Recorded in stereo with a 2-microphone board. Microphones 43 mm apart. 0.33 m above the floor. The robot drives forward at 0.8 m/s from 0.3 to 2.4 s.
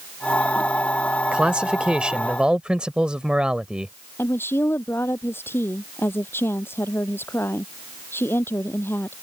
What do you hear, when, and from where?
1.3 s a man speaking: 25° right (ahead or behind)
4.2 s a woman speaking: 70° left (ahead or behind)